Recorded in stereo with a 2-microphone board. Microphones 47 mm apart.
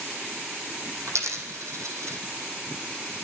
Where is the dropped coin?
80° right, 1.5 m.